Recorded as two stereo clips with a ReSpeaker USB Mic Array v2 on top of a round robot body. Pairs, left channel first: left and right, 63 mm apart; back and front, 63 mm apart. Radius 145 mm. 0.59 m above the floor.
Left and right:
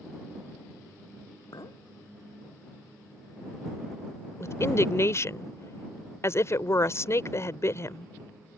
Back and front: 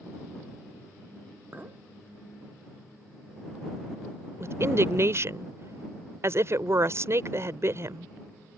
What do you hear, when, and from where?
1.5 s a clink: 60° left
4.4 s a woman speaking: 45° left